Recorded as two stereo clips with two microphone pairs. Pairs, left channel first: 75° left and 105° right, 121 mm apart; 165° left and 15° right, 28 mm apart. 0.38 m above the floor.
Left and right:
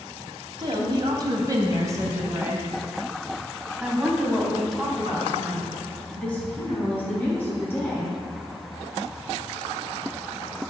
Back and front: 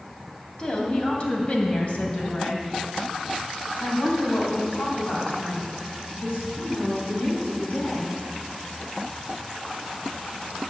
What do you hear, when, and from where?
0.6 s a woman speaking: 145° right, 2.5 m; by 8.2 s 145° left, 4.5 m